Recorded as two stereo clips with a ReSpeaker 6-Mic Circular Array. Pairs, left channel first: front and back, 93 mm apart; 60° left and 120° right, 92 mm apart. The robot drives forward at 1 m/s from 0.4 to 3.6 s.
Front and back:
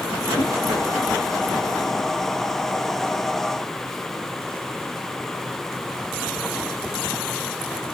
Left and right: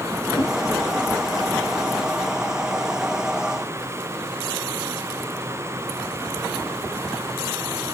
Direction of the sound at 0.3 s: 25° left.